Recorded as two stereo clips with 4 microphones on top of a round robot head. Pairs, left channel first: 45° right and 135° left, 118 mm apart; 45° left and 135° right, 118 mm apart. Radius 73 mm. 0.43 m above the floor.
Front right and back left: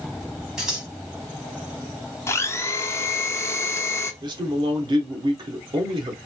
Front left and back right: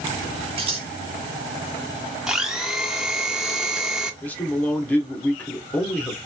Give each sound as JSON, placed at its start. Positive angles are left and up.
{"t": 0.6, "sound": "scissors", "azimuth_deg": -140, "distance_m": 1.6}
{"t": 2.3, "sound": "a blender", "azimuth_deg": -55, "distance_m": 0.8}
{"t": 4.2, "sound": "a man speaking", "azimuth_deg": 115, "distance_m": 0.9}